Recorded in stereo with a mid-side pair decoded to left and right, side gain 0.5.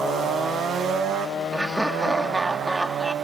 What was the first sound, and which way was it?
Laughter, 10° right.